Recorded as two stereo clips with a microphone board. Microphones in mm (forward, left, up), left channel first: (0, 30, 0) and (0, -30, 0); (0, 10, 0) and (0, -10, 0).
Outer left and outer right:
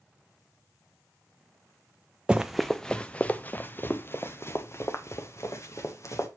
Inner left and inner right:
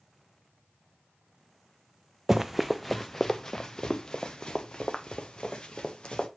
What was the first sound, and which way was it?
Running footsteps, 15° right (ahead or behind).